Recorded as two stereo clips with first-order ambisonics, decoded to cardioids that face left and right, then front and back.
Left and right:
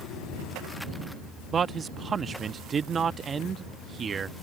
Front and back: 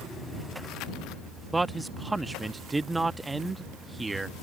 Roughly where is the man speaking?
Right.